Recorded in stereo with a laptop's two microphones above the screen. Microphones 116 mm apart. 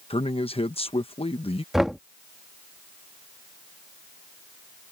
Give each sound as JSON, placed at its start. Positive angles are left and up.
{"t": 0.1, "sound": "a man speaking", "side_deg": 55}
{"t": 1.7, "sound": "knocking", "side_deg": -5}